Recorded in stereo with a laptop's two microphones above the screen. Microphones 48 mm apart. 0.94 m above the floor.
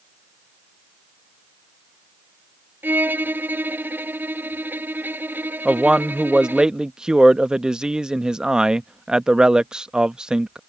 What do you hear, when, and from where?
2.8 s a violin: 40° right (ahead or behind)
5.7 s a man speaking: 15° right (ahead or behind)